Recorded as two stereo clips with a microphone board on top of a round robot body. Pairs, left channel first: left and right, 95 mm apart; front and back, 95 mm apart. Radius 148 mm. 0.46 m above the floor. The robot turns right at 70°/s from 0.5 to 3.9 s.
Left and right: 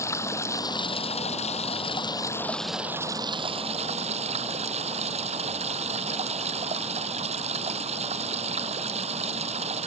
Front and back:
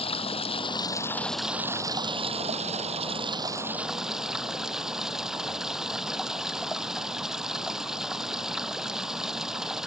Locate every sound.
0.0 s running water: 25° left; by 9.9 s 95° right